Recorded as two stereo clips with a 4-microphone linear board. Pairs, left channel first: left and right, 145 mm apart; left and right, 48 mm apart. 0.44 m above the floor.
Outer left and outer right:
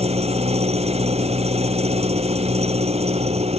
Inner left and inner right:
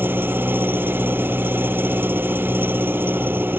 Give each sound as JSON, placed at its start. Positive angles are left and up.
{"t": 0.0, "sound": "an engine running", "side_deg": -45}